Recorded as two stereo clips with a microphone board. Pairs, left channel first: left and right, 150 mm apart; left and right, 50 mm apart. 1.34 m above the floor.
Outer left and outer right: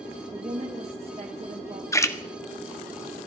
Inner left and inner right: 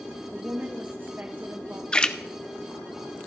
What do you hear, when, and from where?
0.3 s a woman speaking: 45° right (ahead or behind), 1.3 m
1.9 s a splash: 20° left (ahead or behind), 0.9 m